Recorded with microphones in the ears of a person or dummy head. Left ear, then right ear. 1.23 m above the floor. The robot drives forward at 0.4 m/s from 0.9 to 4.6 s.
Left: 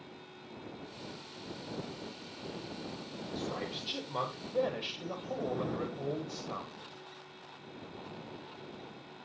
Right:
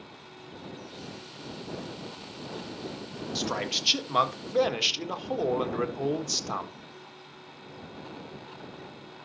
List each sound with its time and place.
3.4 s a man speaking: 55° right (ahead or behind), 1.5 m; by 6.7 s 70° right (ahead or behind), 1.3 m